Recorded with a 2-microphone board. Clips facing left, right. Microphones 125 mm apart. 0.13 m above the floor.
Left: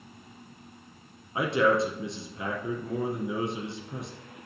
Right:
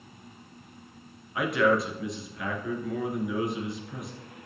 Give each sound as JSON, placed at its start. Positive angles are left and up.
{"t": 1.4, "sound": "a man speaking", "side_deg": 30, "distance_m": 1.9}